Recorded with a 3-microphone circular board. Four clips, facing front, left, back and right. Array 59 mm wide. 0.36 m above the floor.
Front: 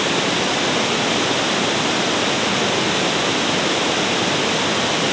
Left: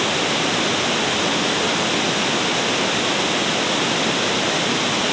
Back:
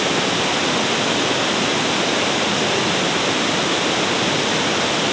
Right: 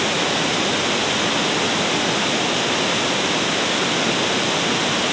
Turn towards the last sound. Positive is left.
No sound to turn to.